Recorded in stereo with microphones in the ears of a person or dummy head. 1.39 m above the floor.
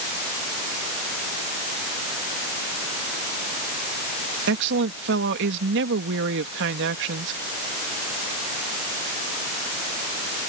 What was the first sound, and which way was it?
A woman speaking, 60° right (ahead or behind).